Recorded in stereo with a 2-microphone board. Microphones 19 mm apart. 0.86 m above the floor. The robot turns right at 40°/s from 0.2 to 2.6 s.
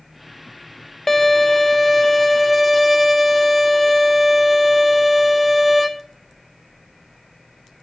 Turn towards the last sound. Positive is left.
turn(degrees=0)  # may be behind; listen again after turning